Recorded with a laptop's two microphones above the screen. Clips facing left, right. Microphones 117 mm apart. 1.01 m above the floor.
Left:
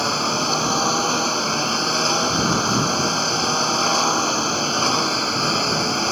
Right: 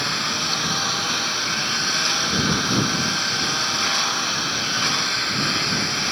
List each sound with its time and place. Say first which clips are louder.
0.0 s a lawn mower: left 6 dB; 35° left (ahead or behind)